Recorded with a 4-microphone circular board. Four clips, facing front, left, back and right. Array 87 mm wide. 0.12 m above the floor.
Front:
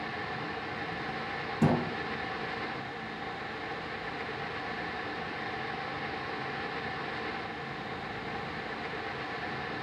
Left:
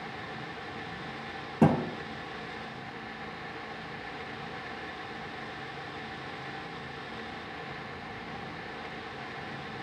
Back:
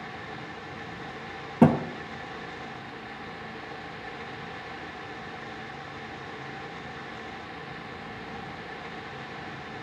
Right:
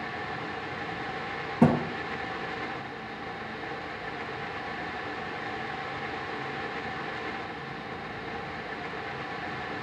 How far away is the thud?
About 1.6 m.